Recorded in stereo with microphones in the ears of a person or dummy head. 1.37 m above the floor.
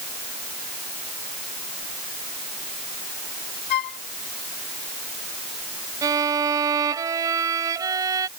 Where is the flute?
60° left (ahead or behind).